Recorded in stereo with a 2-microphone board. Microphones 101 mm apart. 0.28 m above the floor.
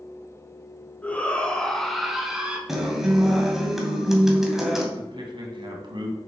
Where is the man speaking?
50° right (ahead or behind), 2.5 m.